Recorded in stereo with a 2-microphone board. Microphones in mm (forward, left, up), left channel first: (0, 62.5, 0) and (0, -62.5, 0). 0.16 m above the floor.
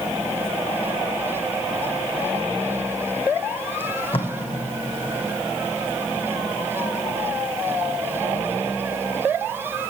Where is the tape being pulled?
50° left (ahead or behind), 1.6 m.